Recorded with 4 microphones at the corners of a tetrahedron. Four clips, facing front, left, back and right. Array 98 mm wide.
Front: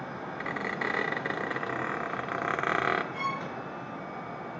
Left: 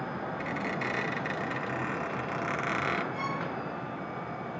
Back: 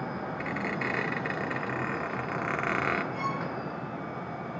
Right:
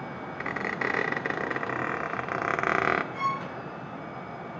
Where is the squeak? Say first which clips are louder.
Right 5 dB, front 1 dB; 65° right, 1.0 m.